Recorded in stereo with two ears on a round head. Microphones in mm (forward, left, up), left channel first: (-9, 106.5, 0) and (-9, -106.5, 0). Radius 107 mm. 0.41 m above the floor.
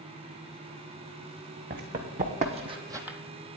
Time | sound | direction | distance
1.7 | running footsteps | 40° right (ahead or behind) | 1.6 m